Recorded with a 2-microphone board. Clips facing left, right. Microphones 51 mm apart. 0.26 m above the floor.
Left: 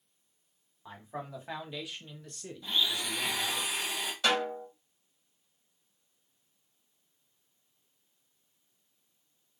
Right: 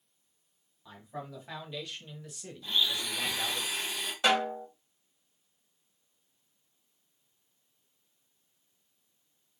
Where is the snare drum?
20° right (ahead or behind), 1.6 m.